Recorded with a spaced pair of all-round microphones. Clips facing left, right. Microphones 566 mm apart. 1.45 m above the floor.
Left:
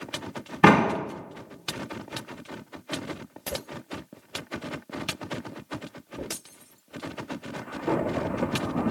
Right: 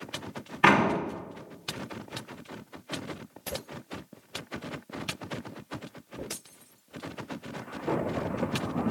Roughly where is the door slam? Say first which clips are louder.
Left 5 dB; left.